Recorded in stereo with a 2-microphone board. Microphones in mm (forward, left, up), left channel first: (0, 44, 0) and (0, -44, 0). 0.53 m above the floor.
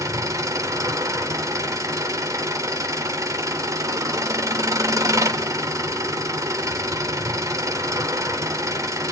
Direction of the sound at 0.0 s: 40° right (ahead or behind).